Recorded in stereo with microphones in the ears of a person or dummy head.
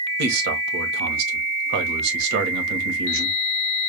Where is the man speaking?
70° right (ahead or behind), 1.5 m.